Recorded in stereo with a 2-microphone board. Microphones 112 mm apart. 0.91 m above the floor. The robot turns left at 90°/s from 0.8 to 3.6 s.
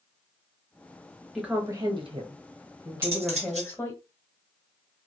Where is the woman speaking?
Straight ahead, 1.0 m; by 4.0 s 155° left, 1.0 m.